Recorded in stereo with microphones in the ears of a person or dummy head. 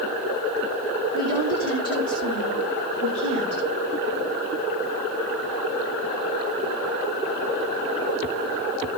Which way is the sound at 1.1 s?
50° right (ahead or behind).